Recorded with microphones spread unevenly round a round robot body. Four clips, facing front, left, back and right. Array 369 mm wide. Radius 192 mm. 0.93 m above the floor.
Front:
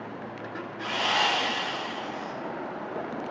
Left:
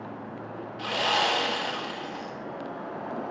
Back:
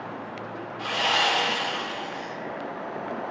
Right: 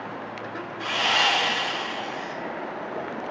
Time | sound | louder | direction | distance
0.8 | sawing | right 1 dB, back 2 dB | 90° left | 0.8 m